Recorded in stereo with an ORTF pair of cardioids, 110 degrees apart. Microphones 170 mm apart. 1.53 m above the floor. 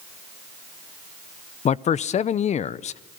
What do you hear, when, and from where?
1.6 s a man speaking: 45° left, 0.7 m